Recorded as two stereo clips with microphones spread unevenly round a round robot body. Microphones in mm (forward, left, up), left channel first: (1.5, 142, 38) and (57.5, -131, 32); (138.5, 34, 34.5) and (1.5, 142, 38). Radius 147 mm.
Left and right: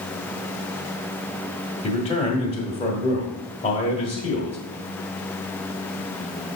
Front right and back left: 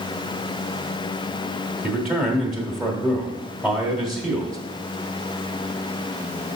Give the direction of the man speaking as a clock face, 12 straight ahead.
10 o'clock.